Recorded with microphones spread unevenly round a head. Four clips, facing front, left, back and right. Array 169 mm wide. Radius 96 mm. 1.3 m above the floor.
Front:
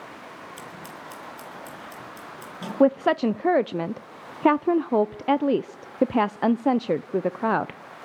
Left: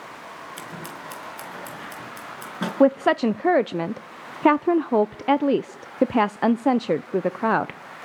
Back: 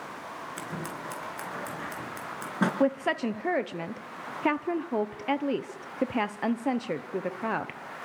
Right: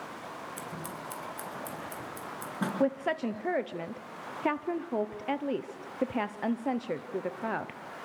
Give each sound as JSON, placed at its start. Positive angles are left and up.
{"t": 0.6, "sound": "scissors", "azimuth_deg": 155, "distance_m": 4.5}
{"t": 2.8, "sound": "a woman speaking", "azimuth_deg": 70, "distance_m": 0.5}